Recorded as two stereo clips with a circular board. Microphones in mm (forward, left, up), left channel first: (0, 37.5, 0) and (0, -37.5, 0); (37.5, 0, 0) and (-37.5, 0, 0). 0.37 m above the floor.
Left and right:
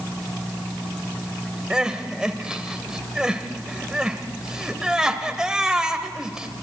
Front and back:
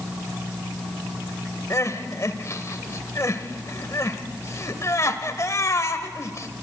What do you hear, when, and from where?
1.7 s crying: 15° right, 1.2 m